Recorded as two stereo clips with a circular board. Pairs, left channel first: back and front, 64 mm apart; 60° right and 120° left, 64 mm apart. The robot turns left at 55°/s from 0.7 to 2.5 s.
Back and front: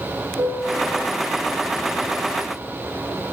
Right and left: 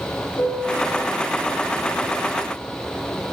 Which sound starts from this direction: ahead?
A piano, at 0.4 s.